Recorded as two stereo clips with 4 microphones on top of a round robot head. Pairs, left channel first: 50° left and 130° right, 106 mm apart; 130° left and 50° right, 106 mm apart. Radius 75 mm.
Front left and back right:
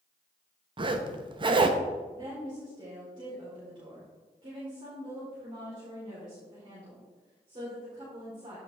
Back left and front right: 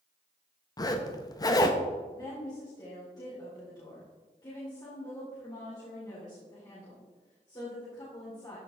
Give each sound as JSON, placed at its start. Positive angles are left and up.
{"t": 0.8, "sound": "a zipper", "azimuth_deg": -175, "distance_m": 0.9}
{"t": 2.1, "sound": "a woman speaking", "azimuth_deg": -175, "distance_m": 3.5}